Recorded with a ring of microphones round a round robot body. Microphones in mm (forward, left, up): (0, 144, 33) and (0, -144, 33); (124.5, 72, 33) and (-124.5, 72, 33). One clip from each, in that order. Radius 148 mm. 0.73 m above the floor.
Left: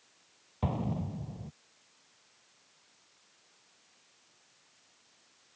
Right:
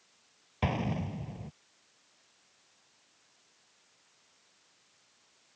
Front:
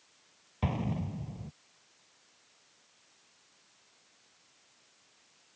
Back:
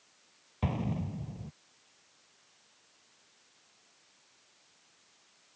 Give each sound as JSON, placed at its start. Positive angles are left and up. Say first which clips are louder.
{"t": 0.6, "sound": "an explosion", "louder": "right 3 dB, front 1 dB", "azimuth_deg": -85}